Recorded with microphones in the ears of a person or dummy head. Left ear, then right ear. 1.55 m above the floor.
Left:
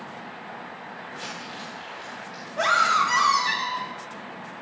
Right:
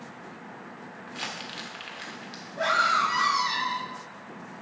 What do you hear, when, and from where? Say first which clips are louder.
1.1 s crumpling: right 2 dB; 30° right (ahead or behind), 1.4 m
2.6 s a scream: left 3 dB; 45° left (ahead or behind), 1.7 m